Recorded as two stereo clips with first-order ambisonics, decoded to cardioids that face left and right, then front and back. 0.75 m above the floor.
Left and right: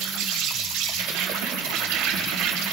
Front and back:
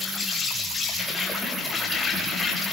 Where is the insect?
70° right, 5.5 m.